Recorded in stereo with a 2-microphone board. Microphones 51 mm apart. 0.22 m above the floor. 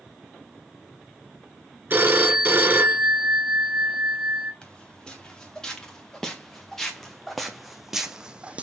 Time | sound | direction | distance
1.9 | a phone ringing | 40° right (ahead or behind) | 1.7 m
4.6 | footsteps | 20° left (ahead or behind) | 3 m